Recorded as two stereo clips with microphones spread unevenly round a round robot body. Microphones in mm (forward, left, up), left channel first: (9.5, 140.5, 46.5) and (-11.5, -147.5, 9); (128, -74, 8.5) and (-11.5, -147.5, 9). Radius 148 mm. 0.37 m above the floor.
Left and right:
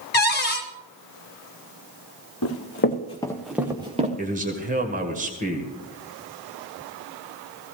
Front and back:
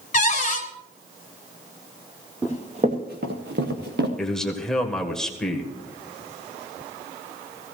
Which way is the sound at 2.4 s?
125° left.